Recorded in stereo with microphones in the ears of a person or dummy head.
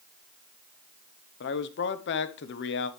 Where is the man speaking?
60° left (ahead or behind), 0.9 m.